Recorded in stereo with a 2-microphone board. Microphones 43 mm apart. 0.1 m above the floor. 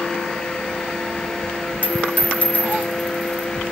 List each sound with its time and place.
1.8 s a dropped coin: 30° left (ahead or behind), 0.8 m